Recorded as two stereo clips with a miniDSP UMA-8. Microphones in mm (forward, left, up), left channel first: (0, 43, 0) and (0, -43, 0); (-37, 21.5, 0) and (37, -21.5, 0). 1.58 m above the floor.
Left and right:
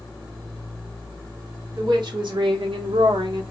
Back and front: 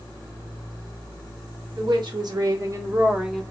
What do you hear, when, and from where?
1.7 s a woman speaking: 55° right, 1.3 m; by 3.4 s 125° right, 0.6 m